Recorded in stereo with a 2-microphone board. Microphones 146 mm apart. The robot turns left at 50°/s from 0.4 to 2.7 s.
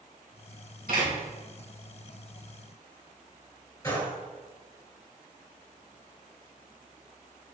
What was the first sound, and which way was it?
A door slam, 80° right.